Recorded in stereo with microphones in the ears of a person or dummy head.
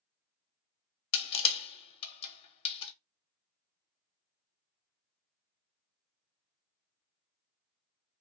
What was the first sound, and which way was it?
Crushing, 30° left (ahead or behind).